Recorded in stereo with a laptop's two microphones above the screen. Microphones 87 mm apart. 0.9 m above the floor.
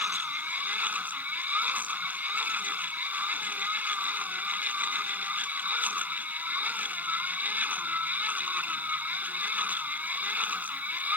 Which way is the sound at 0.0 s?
20° right (ahead or behind).